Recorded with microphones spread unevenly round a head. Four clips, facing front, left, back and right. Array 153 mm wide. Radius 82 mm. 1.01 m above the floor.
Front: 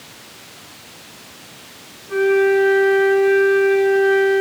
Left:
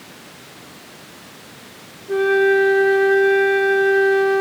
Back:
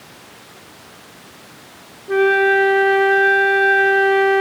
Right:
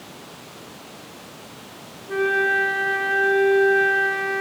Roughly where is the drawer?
I don't hear a drawer.